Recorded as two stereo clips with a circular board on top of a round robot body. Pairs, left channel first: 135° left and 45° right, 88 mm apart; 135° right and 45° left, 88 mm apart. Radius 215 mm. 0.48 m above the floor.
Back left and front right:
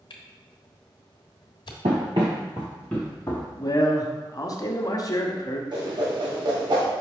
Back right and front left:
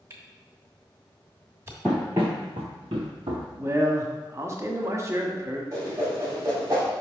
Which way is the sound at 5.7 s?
10° right.